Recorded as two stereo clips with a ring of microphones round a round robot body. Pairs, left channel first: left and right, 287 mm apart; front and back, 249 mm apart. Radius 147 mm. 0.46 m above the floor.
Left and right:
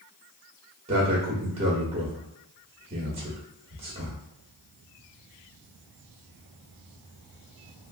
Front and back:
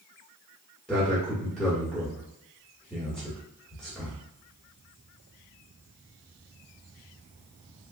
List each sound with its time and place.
0.9 s a man speaking: 80° right, 1.2 m